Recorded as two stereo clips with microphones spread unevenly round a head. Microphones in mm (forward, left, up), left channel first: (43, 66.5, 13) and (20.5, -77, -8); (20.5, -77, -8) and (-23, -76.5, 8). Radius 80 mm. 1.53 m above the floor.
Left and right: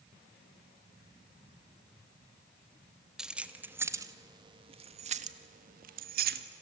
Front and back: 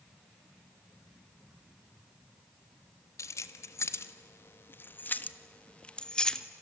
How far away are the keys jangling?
About 1.4 m.